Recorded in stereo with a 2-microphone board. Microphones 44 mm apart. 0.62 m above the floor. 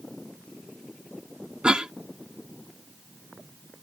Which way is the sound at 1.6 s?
20° right (ahead or behind).